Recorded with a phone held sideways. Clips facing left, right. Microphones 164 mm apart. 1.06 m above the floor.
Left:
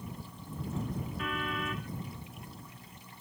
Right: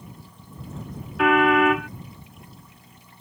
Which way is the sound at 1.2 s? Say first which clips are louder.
Right 22 dB; 85° right.